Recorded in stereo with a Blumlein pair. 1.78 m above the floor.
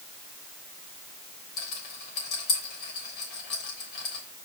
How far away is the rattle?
About 3.5 m.